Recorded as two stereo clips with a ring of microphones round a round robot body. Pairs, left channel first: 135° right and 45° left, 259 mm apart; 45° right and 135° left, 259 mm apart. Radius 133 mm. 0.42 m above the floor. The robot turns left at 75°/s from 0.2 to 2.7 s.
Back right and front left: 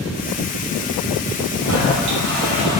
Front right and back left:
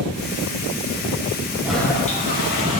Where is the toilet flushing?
50° left, 8 m; by 2.8 s 30° right, 8 m.